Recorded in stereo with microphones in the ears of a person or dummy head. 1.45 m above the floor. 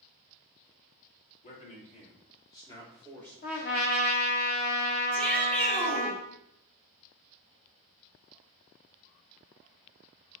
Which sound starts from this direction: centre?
A shout, at 5.1 s.